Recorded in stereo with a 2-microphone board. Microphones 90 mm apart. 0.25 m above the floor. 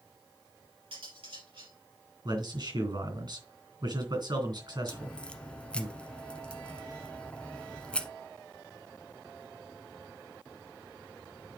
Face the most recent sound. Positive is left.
turn(degrees=10)  # may be behind; listen again after turning